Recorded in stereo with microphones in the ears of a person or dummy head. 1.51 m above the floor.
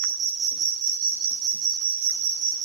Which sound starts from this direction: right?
An insect, at 0.0 s.